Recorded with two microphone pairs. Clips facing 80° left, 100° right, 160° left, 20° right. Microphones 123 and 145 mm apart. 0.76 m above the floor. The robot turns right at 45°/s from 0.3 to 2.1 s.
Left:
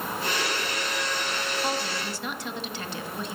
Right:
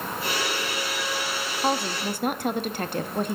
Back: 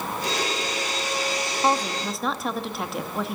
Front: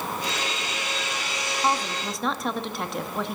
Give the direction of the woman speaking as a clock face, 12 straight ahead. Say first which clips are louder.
Right 4 dB, back 3 dB; 4 o'clock.